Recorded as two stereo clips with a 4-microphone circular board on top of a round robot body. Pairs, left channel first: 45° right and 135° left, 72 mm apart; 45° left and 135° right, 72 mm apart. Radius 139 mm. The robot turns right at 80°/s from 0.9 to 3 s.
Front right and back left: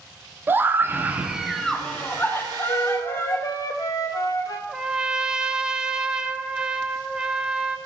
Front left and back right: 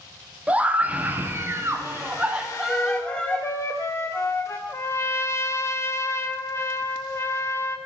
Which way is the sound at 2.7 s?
30° right.